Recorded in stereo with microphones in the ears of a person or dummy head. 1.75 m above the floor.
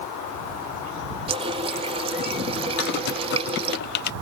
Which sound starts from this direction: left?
Typing on a keyboard, at 2.8 s.